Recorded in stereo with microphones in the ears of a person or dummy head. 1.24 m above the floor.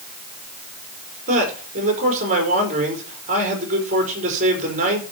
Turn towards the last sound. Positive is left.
turn(degrees=-35)  # may be behind; listen again after turning